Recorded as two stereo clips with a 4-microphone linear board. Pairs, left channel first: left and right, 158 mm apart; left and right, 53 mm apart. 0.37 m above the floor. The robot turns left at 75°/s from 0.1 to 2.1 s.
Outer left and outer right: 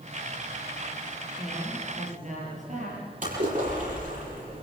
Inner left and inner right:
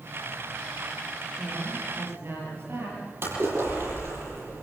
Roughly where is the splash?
Right.